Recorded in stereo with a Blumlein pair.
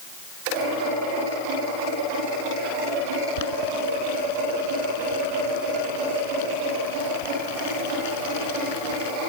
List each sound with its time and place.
3.4 s boiling: 50° left